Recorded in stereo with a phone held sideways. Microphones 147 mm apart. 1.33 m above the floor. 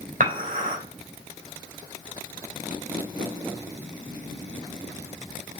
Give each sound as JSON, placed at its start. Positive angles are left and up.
{"t": 0.2, "sound": "dishes clattering", "side_deg": -70, "distance_m": 3.5}